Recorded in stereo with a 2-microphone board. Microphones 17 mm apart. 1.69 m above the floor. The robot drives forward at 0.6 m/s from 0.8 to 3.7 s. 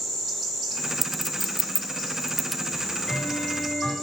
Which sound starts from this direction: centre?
A clink, at 1.0 s.